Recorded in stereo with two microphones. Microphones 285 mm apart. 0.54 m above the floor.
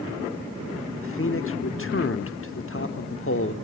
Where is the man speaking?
50° left (ahead or behind), 1.0 m.